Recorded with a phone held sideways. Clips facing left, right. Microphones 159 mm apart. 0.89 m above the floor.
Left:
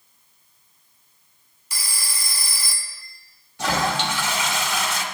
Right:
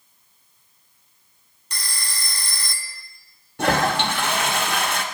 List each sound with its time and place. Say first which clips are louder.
1.7 s a phone ringing: right 1 dB; 5° left (ahead or behind), 0.6 m
3.6 s a toilet flushing: right 3 dB; 60° right (ahead or behind), 0.9 m